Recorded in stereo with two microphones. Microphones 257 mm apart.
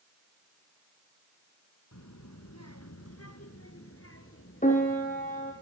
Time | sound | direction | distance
1.9 | a child speaking | 80° left | 3.5 m
4.6 | a piano | 30° left (ahead or behind) | 6.5 m